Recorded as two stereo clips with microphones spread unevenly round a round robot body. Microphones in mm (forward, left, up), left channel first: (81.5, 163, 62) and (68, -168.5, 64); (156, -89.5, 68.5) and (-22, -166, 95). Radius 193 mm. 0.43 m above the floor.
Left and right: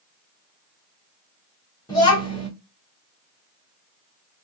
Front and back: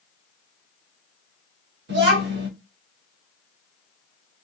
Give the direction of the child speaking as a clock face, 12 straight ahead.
6 o'clock.